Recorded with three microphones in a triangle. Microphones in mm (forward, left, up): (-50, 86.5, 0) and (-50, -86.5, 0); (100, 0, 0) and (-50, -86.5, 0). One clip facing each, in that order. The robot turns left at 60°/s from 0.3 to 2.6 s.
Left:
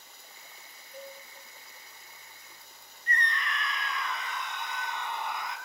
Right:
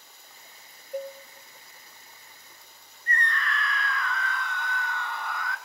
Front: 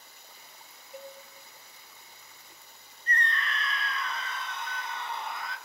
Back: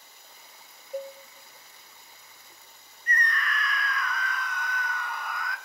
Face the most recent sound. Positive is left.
turn(degrees=50)